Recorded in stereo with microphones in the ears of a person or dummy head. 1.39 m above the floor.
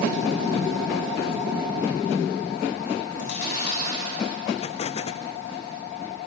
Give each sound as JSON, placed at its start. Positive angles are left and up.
{"t": 3.1, "sound": "chewing", "side_deg": 70, "distance_m": 8.0}
{"t": 4.6, "sound": "an explosion", "side_deg": 45, "distance_m": 0.5}